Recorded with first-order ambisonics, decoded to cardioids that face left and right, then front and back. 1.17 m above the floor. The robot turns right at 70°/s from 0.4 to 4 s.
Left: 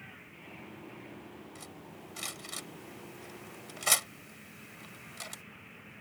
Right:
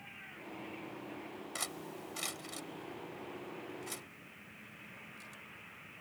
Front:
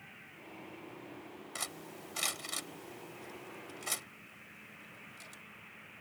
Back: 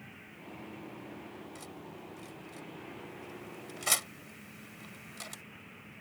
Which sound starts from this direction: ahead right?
Cutlery clinking, at 1.6 s.